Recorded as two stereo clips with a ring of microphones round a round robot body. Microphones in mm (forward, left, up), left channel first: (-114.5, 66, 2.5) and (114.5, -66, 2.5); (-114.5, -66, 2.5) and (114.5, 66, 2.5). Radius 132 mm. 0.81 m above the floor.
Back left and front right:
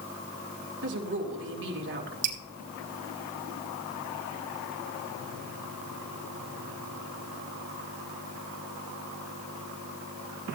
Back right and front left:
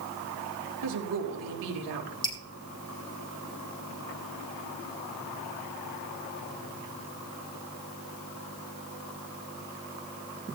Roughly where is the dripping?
Right.